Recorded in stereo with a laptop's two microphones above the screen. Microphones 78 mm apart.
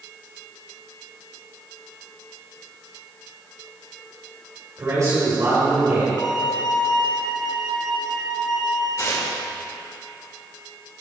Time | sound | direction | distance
4.8 | a man speaking | 45° right (ahead or behind) | 3 m
6.2 | a violin | 70° left (ahead or behind) | 1.9 m
9.0 | tearing paper | 45° left (ahead or behind) | 1.9 m